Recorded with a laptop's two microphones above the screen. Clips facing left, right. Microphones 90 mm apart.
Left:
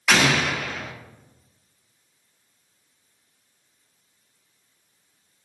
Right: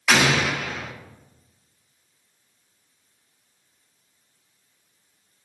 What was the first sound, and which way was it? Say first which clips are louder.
An explosion: even; 5° right (ahead or behind).